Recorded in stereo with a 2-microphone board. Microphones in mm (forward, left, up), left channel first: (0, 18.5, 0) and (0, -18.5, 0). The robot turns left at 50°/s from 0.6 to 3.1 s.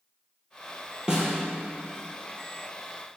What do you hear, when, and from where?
1.1 s a snare drum: 20° right (ahead or behind), 3.5 m; by 1.3 s 10° right (ahead or behind), 3.5 m